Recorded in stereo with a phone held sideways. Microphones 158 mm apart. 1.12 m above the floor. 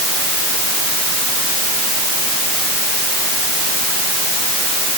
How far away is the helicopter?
I don't hear a helicopter.